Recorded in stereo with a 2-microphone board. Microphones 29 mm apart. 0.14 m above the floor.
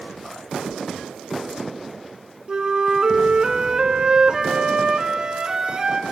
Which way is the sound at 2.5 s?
30° right (ahead or behind).